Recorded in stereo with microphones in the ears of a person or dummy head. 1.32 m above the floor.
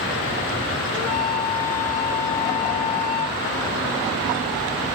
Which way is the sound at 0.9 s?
15° left (ahead or behind).